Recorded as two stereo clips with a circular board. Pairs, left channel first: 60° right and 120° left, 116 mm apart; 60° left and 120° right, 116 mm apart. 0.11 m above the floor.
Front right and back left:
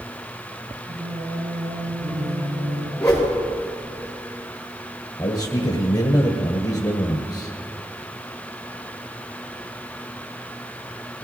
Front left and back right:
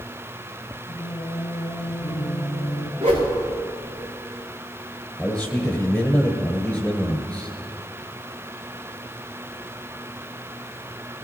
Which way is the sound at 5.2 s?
20° right.